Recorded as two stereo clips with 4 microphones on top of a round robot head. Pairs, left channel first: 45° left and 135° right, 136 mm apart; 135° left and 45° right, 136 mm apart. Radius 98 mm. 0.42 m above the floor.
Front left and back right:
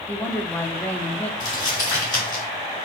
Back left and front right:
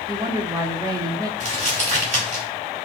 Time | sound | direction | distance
0.1 | a woman speaking | 20° right | 0.8 m
1.4 | crumpling | 10° right | 2.5 m